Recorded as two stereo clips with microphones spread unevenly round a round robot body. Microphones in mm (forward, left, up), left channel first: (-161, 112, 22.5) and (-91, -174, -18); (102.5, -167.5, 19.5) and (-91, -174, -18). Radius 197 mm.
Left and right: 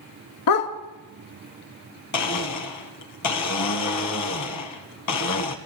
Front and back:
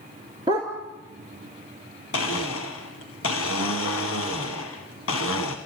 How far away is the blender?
About 1.1 m.